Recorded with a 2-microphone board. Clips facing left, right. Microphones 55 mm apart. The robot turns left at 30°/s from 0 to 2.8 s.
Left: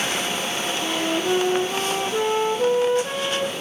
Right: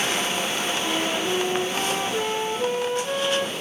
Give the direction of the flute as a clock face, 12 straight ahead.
8 o'clock.